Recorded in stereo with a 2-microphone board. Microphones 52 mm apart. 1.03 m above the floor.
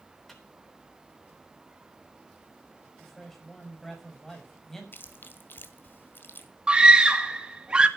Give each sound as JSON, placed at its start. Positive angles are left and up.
{"t": 0.3, "sound": "a microwave", "side_deg": 5, "distance_m": 3.5}
{"t": 3.0, "sound": "a man speaking", "side_deg": 5, "distance_m": 5.5}
{"t": 4.9, "sound": "chewing", "side_deg": 45, "distance_m": 1.8}
{"t": 6.7, "sound": "a scream", "side_deg": -20, "distance_m": 2.0}